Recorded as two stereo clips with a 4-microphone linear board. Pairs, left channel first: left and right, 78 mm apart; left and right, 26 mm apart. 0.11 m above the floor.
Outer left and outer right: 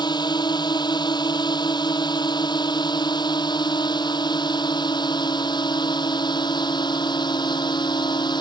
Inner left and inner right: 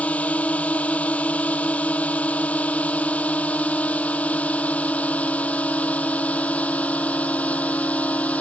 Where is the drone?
65° left (ahead or behind); by 8.4 s 70° left (ahead or behind).